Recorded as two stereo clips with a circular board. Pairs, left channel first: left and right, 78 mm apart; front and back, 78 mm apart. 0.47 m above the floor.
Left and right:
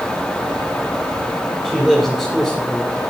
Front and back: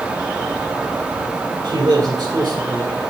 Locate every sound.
1.6 s a man speaking: 170° right, 3 m; by 3.0 s 175° left, 2 m